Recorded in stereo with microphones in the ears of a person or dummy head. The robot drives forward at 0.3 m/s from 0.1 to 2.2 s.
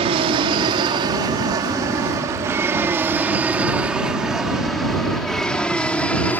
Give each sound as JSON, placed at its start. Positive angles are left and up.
{"t": 0.0, "sound": "an aircraft", "side_deg": -30}